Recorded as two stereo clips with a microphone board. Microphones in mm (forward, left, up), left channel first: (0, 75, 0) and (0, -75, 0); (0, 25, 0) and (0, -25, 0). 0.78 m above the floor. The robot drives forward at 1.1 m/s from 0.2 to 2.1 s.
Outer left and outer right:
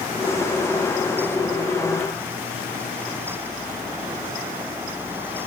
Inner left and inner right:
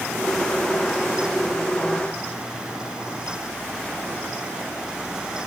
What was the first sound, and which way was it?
Only background noise.